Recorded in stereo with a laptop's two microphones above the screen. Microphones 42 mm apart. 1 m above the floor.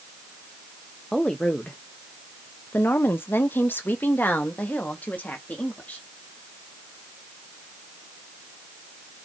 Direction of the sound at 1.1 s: 15° left (ahead or behind).